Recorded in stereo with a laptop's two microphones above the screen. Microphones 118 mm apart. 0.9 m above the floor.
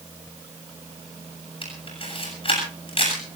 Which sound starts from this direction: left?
A camera shutter, at 1.6 s.